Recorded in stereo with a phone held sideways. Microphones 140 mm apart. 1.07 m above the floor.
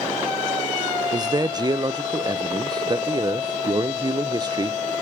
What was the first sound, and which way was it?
A man speaking, 30° right (ahead or behind).